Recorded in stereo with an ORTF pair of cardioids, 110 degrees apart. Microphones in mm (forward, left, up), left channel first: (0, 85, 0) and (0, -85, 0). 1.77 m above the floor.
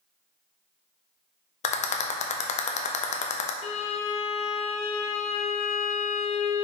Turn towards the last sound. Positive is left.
turn(degrees=45)